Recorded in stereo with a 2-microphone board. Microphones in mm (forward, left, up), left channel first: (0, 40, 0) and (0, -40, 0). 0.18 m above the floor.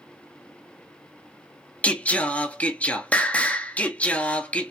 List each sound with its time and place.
1.8 s singing: 15° left (ahead or behind), 0.9 m